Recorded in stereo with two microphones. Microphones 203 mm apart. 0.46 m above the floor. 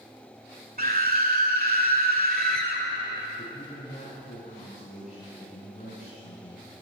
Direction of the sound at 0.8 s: 45° right (ahead or behind).